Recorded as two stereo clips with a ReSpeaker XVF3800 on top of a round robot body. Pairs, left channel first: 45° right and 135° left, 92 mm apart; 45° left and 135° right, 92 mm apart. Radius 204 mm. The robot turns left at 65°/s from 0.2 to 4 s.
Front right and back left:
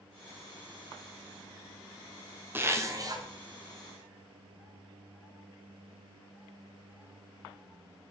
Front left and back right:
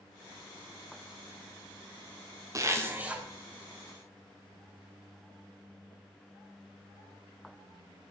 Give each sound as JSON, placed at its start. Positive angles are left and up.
{"t": 2.5, "sound": "a zipper", "azimuth_deg": -170, "distance_m": 1.2}